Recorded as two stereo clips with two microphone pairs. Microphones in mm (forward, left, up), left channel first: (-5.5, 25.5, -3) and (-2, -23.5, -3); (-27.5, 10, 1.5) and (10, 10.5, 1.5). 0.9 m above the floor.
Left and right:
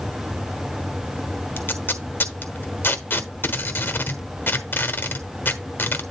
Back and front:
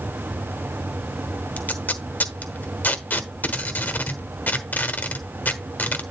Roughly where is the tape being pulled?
Behind left.